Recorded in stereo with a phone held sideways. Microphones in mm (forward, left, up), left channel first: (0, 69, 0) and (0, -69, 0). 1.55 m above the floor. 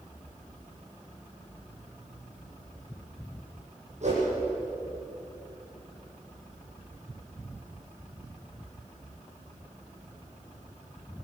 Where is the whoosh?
55° right (ahead or behind), 10 m.